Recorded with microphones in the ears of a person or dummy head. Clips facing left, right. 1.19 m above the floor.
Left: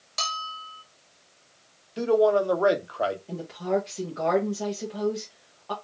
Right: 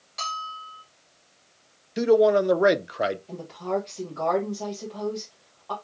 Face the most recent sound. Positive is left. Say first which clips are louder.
# left 2 dB
turn(degrees=25)  # may be behind; listen again after turning